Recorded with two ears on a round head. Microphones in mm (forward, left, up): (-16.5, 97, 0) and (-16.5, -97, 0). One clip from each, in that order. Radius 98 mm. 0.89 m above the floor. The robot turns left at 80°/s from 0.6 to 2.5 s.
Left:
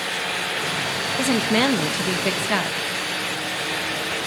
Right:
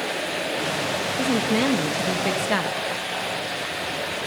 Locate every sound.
1.2 s a woman speaking: 110° left, 1.1 m; by 2.8 s 5° left, 1.1 m